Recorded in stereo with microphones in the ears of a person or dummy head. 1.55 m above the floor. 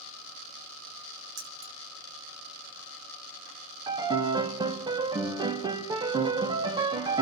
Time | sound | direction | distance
1.4 | keys jangling | 60° right (ahead or behind) | 7 m
3.9 | a piano | 25° right (ahead or behind) | 1.4 m